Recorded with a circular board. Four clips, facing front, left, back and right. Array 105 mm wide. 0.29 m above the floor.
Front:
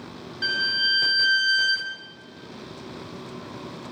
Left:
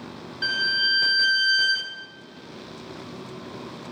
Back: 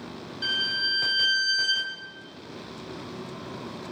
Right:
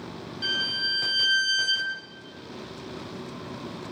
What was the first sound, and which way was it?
A violin, 55° left.